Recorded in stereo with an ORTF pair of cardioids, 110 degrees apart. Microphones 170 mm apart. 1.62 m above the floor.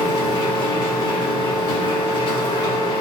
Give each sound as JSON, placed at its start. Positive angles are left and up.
{"t": 0.0, "sound": "a machine running", "azimuth_deg": 25, "distance_m": 0.8}